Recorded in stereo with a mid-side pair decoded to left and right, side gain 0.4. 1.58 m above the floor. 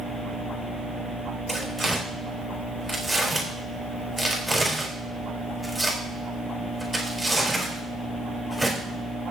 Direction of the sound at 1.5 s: 15° right.